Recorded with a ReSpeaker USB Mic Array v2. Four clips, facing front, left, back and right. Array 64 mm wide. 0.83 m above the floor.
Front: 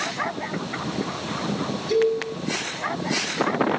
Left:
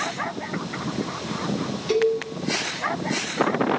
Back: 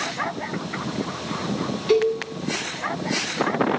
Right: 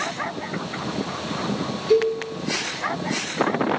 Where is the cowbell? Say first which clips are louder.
Right 2 dB, back 1 dB; 165° left, 7.5 m.